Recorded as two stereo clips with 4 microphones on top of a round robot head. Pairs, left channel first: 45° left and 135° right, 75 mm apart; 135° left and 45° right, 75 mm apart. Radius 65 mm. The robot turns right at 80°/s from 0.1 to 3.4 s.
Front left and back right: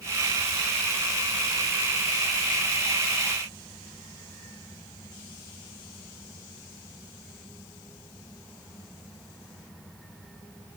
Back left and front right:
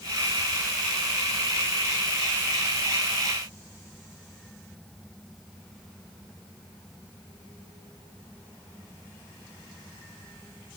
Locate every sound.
Only background noise.